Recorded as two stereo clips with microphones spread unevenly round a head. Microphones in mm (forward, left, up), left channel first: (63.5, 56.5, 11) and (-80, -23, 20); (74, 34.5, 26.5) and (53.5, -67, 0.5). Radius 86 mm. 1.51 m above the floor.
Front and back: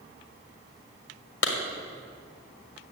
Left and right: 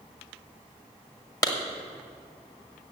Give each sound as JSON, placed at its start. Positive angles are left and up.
{"t": 1.4, "sound": "a clap", "azimuth_deg": 35, "distance_m": 1.7}